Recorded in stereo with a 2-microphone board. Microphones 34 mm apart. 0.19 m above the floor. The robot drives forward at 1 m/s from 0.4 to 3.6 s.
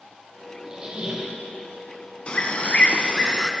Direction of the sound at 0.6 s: 25° right (ahead or behind).